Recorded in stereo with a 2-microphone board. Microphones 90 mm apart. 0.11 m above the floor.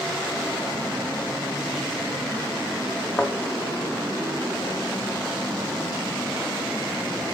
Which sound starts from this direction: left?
A thud, at 3.2 s.